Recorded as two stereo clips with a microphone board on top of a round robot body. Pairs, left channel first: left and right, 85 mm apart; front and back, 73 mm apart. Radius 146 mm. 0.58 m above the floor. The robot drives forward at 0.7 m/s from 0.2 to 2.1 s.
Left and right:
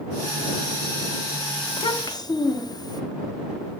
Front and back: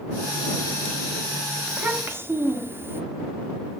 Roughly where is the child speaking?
Left.